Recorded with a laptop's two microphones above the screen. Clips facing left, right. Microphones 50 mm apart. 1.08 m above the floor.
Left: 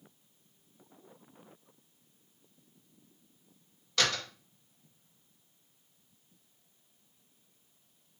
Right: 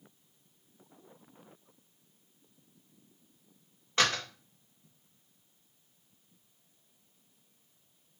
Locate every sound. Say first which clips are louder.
4.0 s a door slam: right 2 dB; 30° right (ahead or behind), 1.0 m